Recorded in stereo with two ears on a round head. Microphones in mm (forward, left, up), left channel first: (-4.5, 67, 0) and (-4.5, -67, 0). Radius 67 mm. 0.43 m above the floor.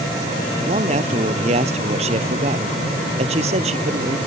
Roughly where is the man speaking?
Right.